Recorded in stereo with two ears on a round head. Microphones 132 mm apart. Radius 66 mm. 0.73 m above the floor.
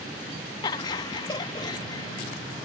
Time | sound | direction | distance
0.6 | laughter | 25° left (ahead or behind) | ?